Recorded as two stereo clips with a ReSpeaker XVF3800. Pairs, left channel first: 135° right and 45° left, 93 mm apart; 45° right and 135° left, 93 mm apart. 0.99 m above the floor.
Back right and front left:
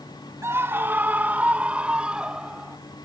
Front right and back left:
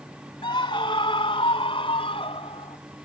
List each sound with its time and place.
0.4 s a scream: 15° right; by 2.8 s 35° right